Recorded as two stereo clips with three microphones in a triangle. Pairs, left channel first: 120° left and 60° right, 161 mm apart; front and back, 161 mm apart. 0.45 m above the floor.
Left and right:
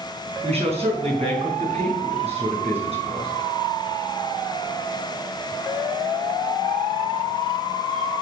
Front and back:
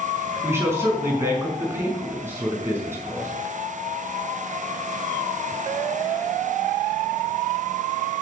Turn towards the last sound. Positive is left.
turn(degrees=-105)